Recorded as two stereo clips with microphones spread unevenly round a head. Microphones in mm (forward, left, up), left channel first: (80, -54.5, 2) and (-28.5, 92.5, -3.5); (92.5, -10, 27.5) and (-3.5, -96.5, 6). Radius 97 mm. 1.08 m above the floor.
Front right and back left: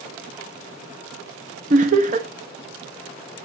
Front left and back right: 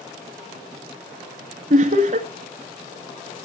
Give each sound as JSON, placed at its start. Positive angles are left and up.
{"t": 1.7, "sound": "laughter", "azimuth_deg": 180, "distance_m": 1.7}